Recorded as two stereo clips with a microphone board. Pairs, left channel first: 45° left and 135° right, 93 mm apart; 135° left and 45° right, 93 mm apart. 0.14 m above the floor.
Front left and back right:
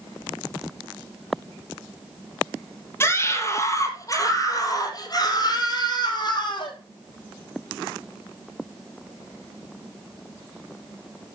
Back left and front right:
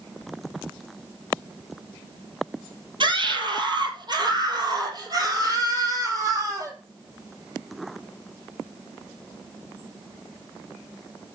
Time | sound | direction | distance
3.0 | a scream | 15° right | 3 m